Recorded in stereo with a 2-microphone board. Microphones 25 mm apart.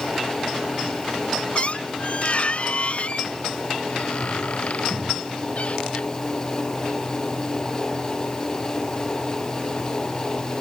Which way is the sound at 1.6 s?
50° left (ahead or behind).